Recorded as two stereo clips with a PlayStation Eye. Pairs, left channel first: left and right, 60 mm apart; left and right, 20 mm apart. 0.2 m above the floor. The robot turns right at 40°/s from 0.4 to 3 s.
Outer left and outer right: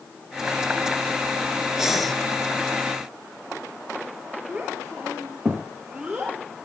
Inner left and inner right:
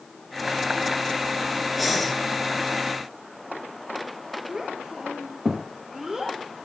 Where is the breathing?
10° right (ahead or behind), 3 m; by 2.1 s 5° left (ahead or behind), 3 m.